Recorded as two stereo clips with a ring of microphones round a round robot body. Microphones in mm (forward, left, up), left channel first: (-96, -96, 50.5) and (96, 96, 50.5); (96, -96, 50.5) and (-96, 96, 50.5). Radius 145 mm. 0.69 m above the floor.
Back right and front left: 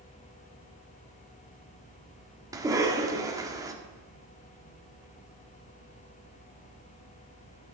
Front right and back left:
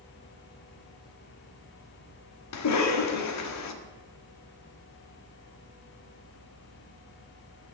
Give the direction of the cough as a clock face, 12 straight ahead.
1 o'clock.